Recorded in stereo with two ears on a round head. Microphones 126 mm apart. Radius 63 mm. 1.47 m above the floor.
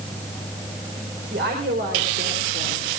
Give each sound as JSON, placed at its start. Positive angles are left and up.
{"t": 1.3, "sound": "a woman speaking", "side_deg": -85, "distance_m": 4.5}